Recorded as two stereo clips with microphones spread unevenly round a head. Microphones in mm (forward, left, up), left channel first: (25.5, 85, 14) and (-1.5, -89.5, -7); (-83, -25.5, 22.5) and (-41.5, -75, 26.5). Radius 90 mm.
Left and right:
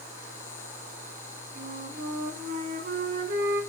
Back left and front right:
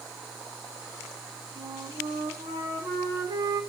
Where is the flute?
65° right, 2.5 m.